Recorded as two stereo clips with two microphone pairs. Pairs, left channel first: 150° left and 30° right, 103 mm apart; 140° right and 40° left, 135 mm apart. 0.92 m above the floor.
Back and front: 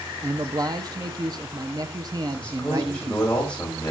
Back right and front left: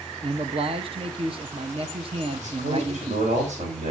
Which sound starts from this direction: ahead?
A man speaking, at 0.2 s.